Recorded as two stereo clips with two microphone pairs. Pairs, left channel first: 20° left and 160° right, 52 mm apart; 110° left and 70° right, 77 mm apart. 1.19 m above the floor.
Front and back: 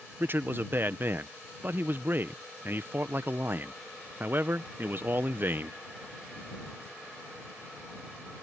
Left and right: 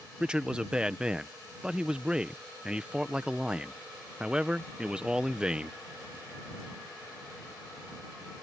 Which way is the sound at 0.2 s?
140° right.